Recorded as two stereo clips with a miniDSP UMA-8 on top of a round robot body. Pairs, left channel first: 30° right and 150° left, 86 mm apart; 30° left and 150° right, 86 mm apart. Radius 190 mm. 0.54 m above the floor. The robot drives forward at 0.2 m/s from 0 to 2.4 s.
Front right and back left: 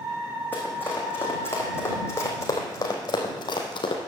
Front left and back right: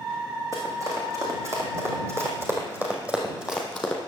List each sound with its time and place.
0.5 s running footsteps: 100° right, 3.5 m; by 4.0 s 55° right, 1.8 m